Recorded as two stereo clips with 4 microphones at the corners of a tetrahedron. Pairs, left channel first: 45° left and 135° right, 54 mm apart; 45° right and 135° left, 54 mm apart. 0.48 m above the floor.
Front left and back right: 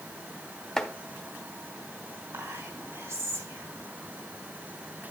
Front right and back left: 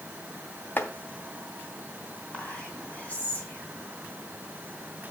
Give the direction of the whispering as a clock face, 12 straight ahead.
4 o'clock.